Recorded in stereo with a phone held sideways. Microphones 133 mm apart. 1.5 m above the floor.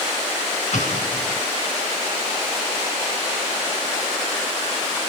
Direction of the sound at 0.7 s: 65° left (ahead or behind).